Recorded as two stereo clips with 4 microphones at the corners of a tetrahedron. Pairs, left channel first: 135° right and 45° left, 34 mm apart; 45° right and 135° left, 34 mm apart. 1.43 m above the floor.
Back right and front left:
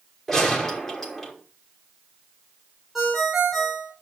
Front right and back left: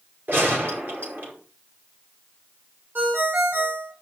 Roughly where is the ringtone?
Behind left.